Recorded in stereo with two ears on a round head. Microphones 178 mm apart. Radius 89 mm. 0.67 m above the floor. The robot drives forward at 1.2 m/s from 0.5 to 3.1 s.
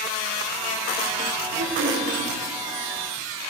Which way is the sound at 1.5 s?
70° right (ahead or behind).